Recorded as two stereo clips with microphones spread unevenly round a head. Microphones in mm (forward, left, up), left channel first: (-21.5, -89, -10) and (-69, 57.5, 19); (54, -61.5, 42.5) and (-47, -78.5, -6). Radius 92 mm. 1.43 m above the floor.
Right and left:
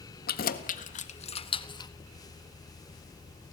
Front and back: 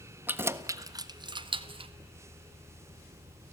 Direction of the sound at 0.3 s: 95° right.